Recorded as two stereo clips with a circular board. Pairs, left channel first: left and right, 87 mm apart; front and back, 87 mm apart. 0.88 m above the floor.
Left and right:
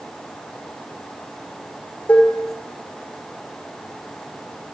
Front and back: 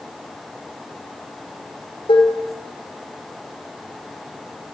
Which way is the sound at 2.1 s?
20° left.